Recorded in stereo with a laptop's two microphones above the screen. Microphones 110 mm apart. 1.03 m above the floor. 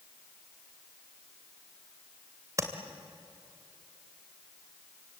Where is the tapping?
30° right (ahead or behind), 2.5 m.